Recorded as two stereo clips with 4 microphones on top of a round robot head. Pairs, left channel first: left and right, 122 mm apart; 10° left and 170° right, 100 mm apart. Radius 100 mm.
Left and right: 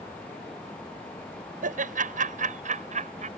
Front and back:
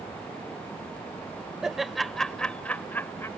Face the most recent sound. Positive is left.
turn(degrees=-65)